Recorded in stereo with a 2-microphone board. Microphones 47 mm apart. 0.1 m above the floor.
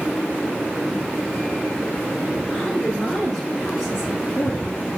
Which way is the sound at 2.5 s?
15° left (ahead or behind).